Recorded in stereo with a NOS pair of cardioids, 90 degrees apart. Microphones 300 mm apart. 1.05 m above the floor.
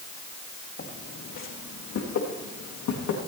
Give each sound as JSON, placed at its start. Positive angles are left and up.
{"t": 0.8, "sound": "footsteps", "azimuth_deg": 35, "distance_m": 4.0}